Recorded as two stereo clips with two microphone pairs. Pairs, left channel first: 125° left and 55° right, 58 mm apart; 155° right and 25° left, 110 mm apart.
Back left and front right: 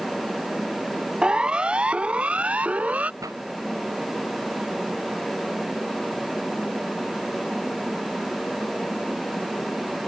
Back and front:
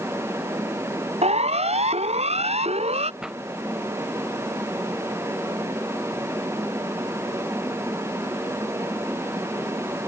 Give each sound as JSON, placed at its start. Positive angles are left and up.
{"t": 1.2, "sound": "a siren", "azimuth_deg": 20}
{"t": 3.2, "sound": "a pop", "azimuth_deg": -60}